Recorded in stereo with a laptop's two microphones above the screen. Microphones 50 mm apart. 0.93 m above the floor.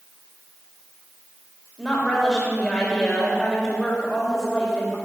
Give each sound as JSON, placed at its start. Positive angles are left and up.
{"t": 1.8, "sound": "a woman speaking", "side_deg": 5, "distance_m": 4.5}